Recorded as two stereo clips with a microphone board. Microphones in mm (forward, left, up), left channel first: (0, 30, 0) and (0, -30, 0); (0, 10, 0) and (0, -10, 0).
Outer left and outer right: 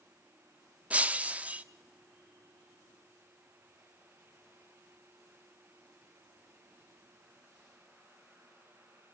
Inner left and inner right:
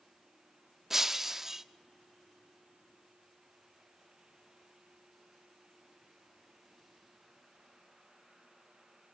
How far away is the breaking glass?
About 0.9 m.